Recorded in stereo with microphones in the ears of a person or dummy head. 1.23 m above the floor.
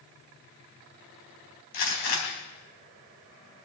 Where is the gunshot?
55° left (ahead or behind), 4 m.